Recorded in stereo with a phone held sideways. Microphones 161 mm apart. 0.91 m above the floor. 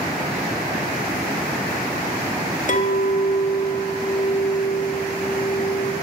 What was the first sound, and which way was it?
A clink, 55° left (ahead or behind).